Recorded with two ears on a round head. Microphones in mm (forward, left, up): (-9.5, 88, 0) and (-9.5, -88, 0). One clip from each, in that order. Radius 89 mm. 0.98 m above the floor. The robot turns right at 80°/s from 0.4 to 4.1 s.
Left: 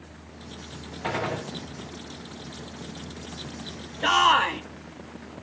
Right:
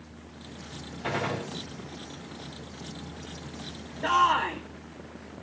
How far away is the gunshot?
About 2.5 m.